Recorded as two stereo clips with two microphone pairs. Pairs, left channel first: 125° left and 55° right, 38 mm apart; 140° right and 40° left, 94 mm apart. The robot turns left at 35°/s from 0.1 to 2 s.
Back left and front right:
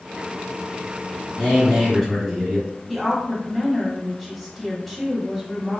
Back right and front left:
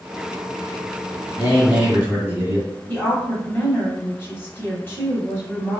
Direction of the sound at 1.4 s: 55° left.